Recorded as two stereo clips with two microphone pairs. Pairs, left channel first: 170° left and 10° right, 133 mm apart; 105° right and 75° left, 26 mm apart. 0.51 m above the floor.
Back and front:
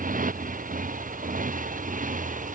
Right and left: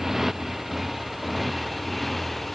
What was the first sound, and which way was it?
A motorcycle, 10° right.